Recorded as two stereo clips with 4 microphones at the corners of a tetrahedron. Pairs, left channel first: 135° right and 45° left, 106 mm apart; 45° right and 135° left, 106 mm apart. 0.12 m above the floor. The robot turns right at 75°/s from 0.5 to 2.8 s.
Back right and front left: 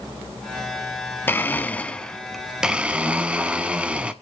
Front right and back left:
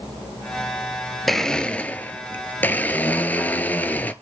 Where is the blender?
130° right, 0.8 m; by 4.1 s 15° right, 0.8 m.